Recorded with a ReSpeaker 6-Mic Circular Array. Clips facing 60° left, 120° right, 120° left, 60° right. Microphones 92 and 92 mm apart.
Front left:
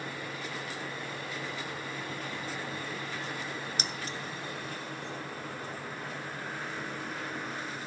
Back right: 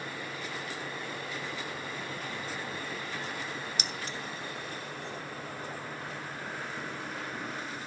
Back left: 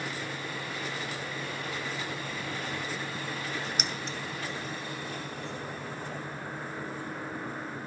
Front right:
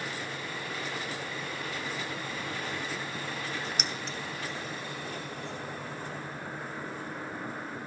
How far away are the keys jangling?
About 0.7 m.